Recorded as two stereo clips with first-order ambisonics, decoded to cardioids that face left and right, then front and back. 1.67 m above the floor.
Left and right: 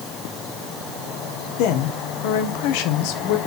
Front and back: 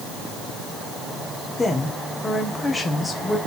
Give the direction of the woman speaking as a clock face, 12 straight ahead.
9 o'clock.